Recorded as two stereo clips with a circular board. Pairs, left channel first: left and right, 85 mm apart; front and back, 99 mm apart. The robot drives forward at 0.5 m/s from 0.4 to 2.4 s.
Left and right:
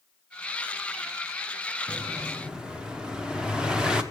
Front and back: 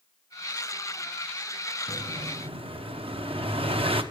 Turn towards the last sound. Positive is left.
turn(degrees=-170)